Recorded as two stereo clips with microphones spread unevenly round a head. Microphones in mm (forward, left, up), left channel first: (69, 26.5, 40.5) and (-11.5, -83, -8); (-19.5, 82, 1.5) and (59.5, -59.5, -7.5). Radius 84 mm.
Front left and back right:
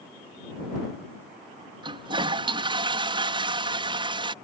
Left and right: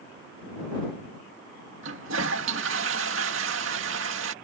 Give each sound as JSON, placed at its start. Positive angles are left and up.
{"t": 1.8, "sound": "a toilet flushing", "azimuth_deg": -70}